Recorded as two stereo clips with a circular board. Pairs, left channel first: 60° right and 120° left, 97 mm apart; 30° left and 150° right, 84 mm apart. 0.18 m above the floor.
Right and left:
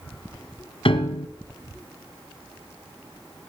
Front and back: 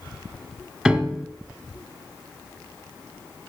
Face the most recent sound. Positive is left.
turn(degrees=-65)